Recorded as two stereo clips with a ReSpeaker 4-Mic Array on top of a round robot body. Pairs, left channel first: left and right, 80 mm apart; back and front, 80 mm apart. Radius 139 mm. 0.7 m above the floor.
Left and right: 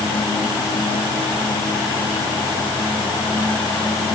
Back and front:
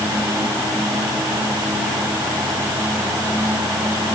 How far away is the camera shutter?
I don't hear a camera shutter.